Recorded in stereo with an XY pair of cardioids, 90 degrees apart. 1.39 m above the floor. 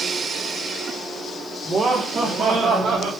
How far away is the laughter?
About 2.5 m.